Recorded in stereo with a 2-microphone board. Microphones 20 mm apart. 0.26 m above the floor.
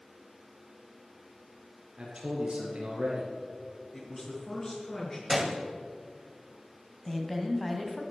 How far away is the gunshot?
About 1.4 m.